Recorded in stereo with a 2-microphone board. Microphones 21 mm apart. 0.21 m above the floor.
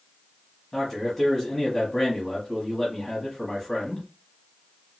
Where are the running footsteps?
No running footsteps in this recording.